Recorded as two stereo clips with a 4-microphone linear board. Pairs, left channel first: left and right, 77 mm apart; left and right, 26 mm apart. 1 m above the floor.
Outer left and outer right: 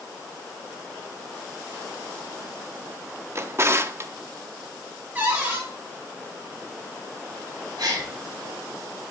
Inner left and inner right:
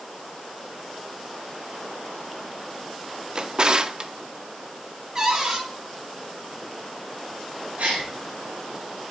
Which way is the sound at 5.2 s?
25° right (ahead or behind).